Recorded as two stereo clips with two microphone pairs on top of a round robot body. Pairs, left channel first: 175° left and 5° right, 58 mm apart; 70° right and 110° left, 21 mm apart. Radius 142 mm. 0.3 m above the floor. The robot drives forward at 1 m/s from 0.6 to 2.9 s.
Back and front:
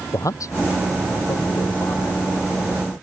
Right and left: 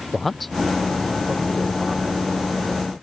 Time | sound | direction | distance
0.1 | a man speaking | 155° right | ?